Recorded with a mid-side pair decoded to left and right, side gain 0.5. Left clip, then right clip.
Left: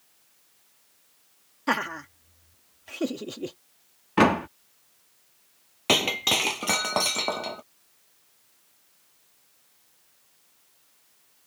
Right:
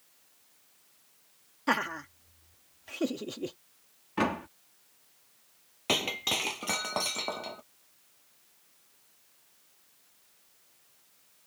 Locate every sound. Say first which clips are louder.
1.7 s laughter: left 2 dB; 10° left
4.2 s a door slam: left 10 dB; 50° left
5.9 s breaking glass: left 7 dB; 35° left